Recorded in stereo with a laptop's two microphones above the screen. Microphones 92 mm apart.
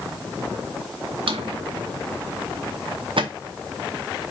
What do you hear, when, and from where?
1.3 s a drawer: 65° right (ahead or behind), 0.7 m